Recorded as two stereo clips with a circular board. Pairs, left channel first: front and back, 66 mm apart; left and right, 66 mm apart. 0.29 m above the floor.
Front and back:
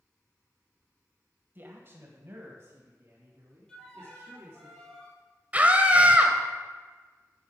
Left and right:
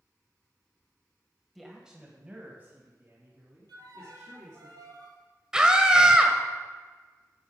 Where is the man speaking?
Straight behind, 1.4 m; by 4.7 s 135° right, 4 m.